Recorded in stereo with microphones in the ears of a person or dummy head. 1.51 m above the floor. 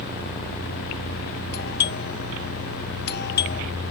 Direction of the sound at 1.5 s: 50° left (ahead or behind).